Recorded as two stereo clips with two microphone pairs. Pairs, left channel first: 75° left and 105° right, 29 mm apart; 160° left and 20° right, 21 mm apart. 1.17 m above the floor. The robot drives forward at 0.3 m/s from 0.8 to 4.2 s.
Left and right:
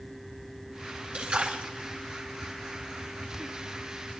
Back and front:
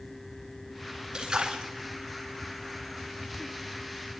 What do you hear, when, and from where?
1.1 s a splash: 70° right, 3.5 m; by 1.6 s 75° right, 3.5 m